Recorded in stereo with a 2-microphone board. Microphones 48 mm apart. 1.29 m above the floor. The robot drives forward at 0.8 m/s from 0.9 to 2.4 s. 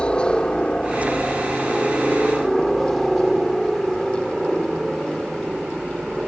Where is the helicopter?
20° left (ahead or behind); by 6.3 s 10° right (ahead or behind).